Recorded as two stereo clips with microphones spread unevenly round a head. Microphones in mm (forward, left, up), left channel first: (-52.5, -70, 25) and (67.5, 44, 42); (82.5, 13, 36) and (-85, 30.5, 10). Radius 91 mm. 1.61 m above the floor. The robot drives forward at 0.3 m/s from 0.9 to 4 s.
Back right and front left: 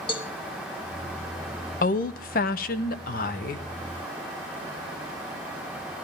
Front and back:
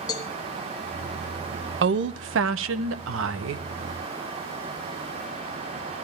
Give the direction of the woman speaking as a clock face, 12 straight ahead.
6 o'clock.